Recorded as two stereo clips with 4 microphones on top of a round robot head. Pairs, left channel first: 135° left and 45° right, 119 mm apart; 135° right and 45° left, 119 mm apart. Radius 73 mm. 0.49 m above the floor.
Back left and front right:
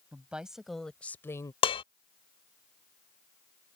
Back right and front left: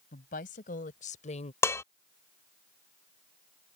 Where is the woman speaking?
125° right; by 1.5 s 165° right.